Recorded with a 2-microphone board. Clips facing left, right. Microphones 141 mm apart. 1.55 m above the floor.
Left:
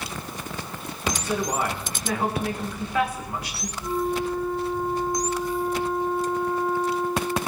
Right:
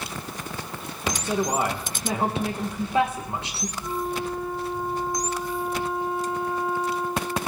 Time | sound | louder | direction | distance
1.2 | a woman speaking | right 2 dB | 25° right (ahead or behind) | 1.9 m
3.8 | a flute | left 4 dB | 10° right (ahead or behind) | 5 m